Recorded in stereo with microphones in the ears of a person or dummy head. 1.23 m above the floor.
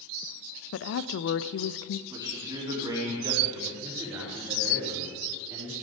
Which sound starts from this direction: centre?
A man speaking, at 2.1 s.